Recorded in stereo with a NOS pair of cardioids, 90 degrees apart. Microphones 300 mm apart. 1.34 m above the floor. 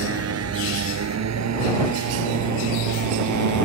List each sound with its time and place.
0.0 s a motorcycle: 50° right; by 3.7 s 70° right